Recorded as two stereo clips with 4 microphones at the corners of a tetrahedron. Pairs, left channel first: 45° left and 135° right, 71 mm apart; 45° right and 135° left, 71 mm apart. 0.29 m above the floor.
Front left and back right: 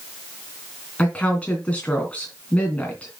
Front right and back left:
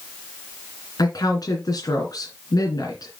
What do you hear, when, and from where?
1.0 s a woman speaking: 25° right, 3 m